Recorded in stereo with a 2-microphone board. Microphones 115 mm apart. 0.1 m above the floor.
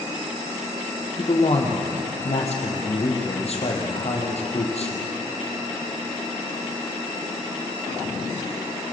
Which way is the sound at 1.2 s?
60° left (ahead or behind).